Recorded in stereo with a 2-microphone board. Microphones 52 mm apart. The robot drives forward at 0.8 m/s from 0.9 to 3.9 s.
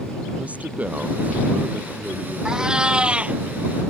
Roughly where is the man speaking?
Right.